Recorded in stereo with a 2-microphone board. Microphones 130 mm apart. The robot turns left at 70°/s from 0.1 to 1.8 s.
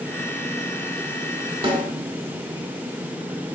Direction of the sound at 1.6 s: 45° right (ahead or behind).